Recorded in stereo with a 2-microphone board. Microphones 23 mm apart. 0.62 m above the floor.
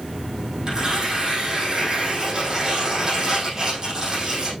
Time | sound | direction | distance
0.7 | tearing paper | 40° right (ahead or behind) | 5 m